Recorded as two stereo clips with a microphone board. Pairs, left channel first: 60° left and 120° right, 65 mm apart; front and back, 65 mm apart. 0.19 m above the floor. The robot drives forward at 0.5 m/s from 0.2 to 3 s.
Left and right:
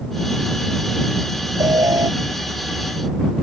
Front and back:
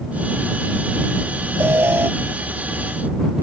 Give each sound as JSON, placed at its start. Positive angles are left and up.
{"t": 1.6, "sound": "an alarm", "azimuth_deg": -130}